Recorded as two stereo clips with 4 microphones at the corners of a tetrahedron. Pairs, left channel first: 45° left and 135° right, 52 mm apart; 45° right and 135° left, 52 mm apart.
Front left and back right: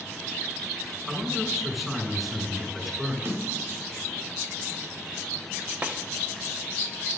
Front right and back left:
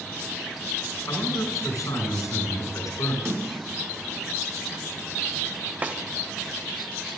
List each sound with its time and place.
1.1 s a man speaking: 50° right, 8 m
3.2 s a snare drum: 175° left, 6.5 m
5.8 s a snare drum: straight behind, 1.7 m